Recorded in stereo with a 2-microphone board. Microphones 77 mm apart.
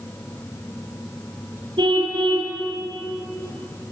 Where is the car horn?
75° right (ahead or behind), 6 m.